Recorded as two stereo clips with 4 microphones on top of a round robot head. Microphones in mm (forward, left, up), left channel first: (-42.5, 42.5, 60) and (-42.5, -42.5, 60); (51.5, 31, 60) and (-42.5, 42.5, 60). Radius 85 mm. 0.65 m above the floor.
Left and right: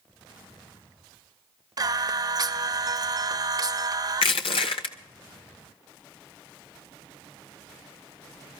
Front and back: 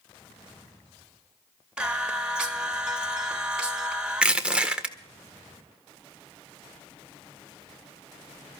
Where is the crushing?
95° left, 1.6 m.